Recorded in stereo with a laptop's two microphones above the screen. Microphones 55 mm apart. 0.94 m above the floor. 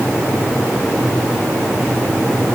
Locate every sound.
Only background noise.